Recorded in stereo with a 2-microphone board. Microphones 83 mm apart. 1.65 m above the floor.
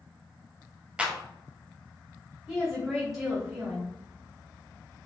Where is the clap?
15° right (ahead or behind), 0.6 m.